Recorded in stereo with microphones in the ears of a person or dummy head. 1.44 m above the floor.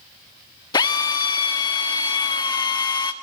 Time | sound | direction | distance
0.7 | a drill | 25° left (ahead or behind) | 1.7 m